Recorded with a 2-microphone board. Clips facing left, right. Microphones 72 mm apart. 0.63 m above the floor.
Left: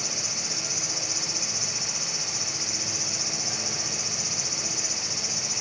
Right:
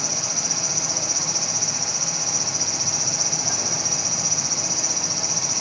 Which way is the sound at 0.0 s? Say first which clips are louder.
Right 5 dB; 85° right.